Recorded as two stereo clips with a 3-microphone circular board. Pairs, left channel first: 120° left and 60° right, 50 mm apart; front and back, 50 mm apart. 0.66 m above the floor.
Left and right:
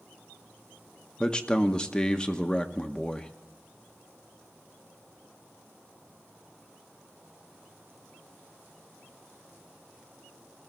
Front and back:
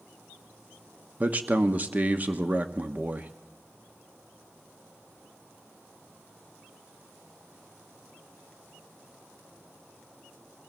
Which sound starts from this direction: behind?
A man speaking, at 1.2 s.